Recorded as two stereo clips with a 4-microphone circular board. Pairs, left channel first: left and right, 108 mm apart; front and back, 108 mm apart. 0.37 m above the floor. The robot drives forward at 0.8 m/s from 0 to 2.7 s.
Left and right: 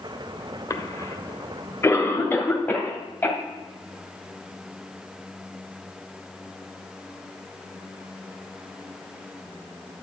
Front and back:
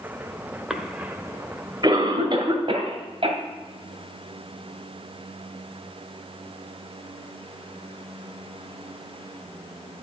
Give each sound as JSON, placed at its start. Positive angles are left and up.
{"t": 0.7, "sound": "a cough", "azimuth_deg": 95, "distance_m": 1.2}